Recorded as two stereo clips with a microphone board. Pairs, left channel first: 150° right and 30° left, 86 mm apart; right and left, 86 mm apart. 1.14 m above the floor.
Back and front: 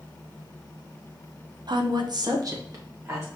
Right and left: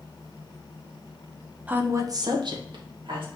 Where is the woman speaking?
20° left, 0.8 m; by 3.3 s 85° left, 1.9 m.